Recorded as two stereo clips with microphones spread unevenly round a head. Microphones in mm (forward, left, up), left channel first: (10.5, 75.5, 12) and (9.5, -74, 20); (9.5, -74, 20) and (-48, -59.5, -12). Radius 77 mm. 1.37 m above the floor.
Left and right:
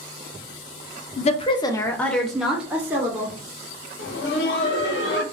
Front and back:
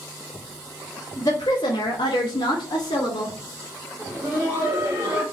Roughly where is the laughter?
Left.